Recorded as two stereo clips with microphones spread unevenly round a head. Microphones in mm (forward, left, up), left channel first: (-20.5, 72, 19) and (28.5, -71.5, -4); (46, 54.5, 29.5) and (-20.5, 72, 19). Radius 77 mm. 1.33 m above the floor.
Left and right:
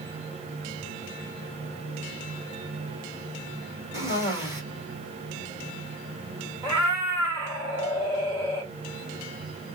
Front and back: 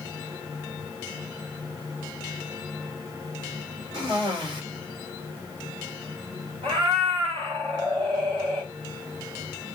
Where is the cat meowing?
140° right, 1.8 m.